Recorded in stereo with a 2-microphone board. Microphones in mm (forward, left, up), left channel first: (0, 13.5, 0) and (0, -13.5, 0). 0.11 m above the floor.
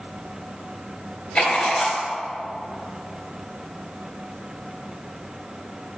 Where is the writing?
45° left (ahead or behind), 2 m.